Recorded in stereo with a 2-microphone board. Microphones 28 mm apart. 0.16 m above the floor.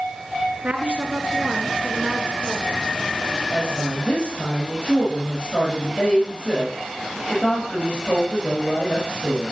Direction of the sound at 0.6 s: 50° right (ahead or behind).